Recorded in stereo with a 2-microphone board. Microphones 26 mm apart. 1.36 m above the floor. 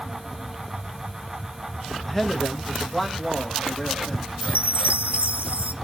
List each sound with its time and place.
2.0 s a man speaking: 10° left (ahead or behind), 1.2 m
4.4 s a chime: 65° right (ahead or behind), 0.9 m